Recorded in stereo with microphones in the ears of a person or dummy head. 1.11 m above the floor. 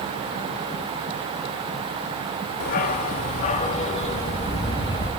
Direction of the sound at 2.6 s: 50° left (ahead or behind).